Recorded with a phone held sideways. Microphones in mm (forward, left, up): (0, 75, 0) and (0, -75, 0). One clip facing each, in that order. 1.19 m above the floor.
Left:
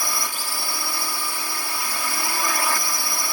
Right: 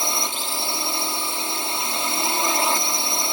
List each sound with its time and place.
0.0 s a drone: 25° right (ahead or behind)